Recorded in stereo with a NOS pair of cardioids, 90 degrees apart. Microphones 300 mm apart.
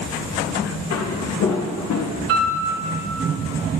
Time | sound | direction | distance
0.9 | footsteps | 60° left | 4 m
2.3 | a piano | 50° right | 3 m